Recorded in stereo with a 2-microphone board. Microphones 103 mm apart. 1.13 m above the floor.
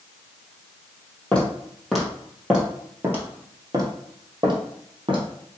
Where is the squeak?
I don't hear a squeak.